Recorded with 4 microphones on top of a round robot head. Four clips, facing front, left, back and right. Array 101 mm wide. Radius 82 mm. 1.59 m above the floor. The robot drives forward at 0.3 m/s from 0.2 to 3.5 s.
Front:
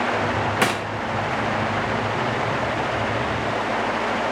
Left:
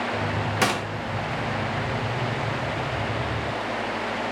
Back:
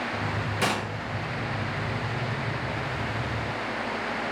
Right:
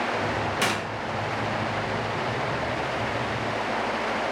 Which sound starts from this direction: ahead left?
A gunshot, at 0.6 s.